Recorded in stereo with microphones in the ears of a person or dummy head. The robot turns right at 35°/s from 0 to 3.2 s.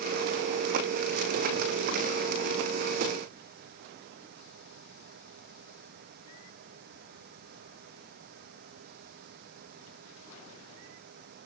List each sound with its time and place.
Only background noise.